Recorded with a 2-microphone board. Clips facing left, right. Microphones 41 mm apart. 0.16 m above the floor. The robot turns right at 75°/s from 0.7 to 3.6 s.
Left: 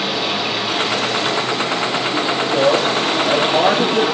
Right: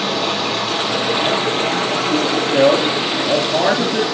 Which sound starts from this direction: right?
A man speaking, at 2.5 s.